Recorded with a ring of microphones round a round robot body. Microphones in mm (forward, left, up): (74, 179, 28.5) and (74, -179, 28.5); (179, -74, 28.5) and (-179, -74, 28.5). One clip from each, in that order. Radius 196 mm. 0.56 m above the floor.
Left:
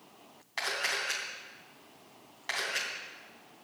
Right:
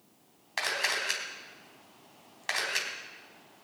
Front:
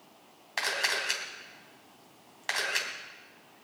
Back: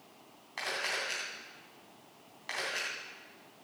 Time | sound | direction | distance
0.6 | a camera shutter | 35° right | 3 m